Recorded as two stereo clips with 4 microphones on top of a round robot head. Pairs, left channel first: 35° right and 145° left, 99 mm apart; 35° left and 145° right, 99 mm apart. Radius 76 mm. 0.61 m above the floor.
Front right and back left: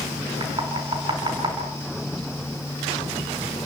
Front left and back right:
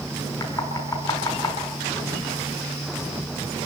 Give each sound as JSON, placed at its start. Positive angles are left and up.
{"t": 0.4, "sound": "knocking", "azimuth_deg": 95, "distance_m": 5.5}